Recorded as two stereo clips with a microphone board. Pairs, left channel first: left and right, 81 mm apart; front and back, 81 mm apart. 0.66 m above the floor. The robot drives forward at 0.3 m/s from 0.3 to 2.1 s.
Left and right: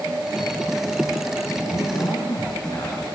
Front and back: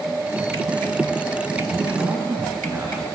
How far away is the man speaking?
About 5.5 m.